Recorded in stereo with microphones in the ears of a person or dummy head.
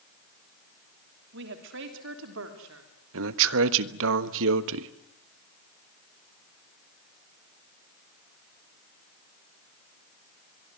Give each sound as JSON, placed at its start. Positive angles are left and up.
{"t": 1.3, "sound": "a woman speaking", "side_deg": -60, "distance_m": 3.0}
{"t": 3.1, "sound": "a man speaking", "side_deg": -75, "distance_m": 1.2}